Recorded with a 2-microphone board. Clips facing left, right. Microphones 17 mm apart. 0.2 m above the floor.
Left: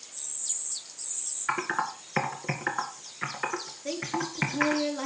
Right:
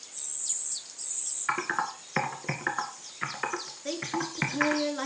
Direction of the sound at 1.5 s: Centre (ahead or behind).